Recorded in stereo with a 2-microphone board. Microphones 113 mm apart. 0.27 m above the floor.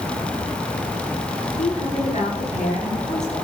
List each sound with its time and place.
1.6 s a woman speaking: 70° left (ahead or behind), 4.5 m; by 3.3 s 75° left (ahead or behind), 6 m